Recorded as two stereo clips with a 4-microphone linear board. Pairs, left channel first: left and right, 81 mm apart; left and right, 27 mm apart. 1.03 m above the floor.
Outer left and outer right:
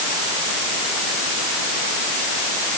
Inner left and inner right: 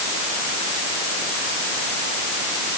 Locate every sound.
Only background noise.